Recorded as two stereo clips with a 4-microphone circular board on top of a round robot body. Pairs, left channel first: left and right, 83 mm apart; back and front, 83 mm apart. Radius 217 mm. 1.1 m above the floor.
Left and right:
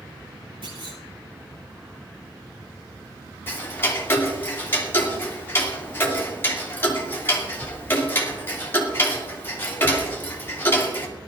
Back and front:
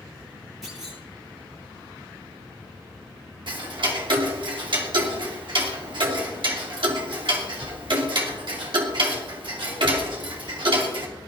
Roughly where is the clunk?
Right.